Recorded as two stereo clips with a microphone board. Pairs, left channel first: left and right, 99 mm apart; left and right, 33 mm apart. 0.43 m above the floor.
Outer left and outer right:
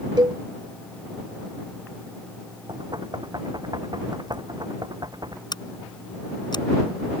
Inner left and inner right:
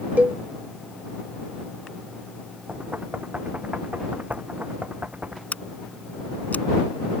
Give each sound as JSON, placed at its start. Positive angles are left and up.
{"t": 0.2, "sound": "a cowbell", "side_deg": -50}
{"t": 2.7, "sound": "knocking", "side_deg": -45}
{"t": 5.5, "sound": "scissors", "side_deg": 50}